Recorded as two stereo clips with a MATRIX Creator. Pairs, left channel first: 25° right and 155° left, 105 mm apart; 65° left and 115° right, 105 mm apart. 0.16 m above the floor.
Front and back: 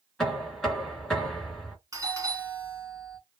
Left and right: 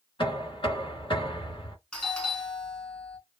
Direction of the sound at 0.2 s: 65° left.